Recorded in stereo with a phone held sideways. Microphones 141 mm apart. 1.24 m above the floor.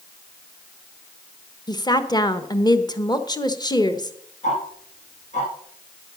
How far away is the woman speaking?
About 1.2 m.